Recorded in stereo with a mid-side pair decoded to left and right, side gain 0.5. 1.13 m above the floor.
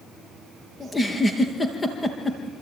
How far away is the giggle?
About 4 m.